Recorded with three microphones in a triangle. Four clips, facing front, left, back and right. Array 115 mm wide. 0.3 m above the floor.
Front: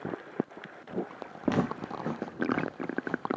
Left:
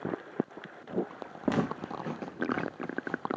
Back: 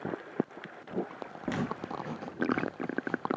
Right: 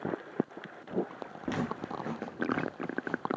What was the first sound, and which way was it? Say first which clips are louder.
Footsteps: left 4 dB, front 5 dB; 40° left.